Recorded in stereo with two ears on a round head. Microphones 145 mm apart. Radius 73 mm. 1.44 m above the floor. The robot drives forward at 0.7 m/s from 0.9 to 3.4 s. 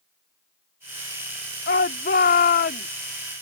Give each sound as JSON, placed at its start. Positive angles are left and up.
{"t": 1.7, "sound": "a shout", "side_deg": 70}